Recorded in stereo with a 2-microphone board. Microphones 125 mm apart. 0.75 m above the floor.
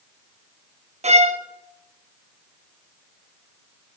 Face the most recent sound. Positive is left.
turn(degrees=-55)  # may be behind; listen again after turning